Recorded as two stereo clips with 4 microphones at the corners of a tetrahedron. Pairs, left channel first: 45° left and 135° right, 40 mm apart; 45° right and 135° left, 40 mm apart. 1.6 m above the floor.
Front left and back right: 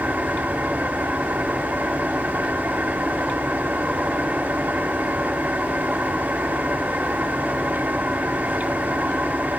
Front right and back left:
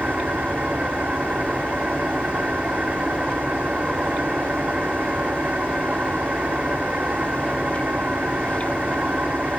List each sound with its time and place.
0.0 s an engine running: 170° right, 2.5 m